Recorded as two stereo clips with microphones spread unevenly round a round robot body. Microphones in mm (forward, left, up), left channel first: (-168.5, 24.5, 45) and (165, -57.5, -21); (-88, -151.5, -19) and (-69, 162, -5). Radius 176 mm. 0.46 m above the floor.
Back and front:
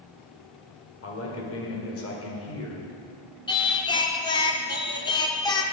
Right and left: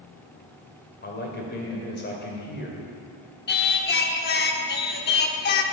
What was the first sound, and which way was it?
A man speaking, 140° right.